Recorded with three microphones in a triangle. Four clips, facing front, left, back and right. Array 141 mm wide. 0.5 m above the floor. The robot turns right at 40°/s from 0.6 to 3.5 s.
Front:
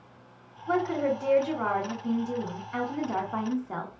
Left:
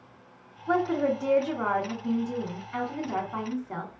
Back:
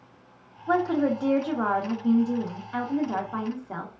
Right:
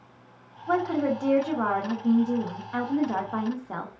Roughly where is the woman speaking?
Behind.